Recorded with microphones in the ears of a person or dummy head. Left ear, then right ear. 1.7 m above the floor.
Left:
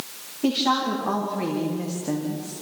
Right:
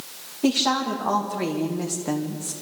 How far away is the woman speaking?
About 2.5 m.